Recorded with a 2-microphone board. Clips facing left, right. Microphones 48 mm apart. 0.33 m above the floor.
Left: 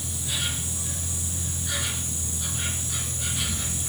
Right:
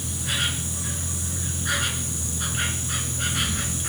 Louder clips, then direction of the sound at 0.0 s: Right 4 dB; 60° right (ahead or behind).